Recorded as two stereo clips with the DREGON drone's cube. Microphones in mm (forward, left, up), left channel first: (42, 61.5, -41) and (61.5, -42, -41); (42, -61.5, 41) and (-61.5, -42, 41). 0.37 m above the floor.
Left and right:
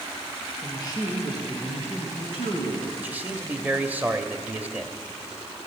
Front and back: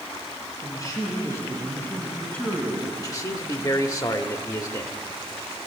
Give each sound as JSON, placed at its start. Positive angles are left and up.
{"t": 0.6, "sound": "a man speaking", "azimuth_deg": 45, "distance_m": 5.0}
{"t": 3.0, "sound": "a man speaking", "azimuth_deg": -20, "distance_m": 1.0}